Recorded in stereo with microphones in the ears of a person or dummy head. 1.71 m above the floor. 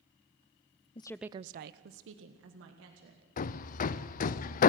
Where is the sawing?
No sawing in this recording.